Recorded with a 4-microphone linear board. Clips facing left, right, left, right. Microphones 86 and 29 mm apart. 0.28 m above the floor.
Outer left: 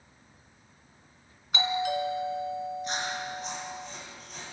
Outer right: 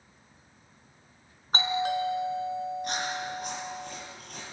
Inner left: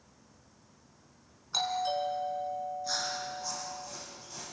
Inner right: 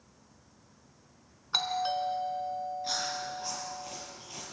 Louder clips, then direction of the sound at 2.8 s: Outer right 1 dB, inner right 1 dB; 60° right (ahead or behind).